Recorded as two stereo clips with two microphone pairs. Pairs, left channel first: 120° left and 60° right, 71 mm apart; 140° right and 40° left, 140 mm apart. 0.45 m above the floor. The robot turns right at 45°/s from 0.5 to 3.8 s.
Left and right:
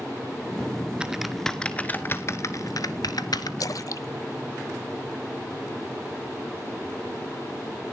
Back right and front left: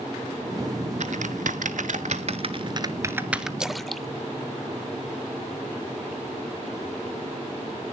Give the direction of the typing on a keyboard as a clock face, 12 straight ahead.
11 o'clock.